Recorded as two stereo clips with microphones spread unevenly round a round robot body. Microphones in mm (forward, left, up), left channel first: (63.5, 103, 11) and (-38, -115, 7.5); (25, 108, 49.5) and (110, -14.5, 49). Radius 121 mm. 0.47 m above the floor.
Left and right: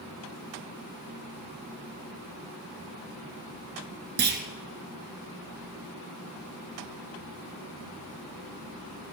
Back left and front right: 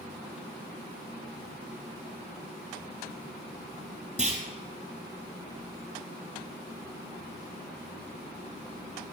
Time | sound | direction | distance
4.2 | a clunk | 165° right | 1.3 m